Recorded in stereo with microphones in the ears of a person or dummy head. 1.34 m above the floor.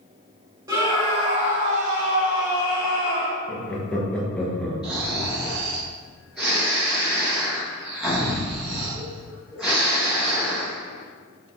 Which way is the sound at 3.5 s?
10° left (ahead or behind).